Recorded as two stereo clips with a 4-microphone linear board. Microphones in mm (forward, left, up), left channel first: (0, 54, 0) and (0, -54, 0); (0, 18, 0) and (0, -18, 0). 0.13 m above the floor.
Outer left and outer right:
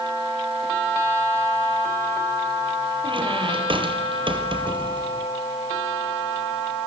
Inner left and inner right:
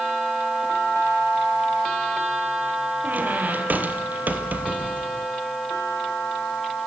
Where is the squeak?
50° right (ahead or behind), 2 m.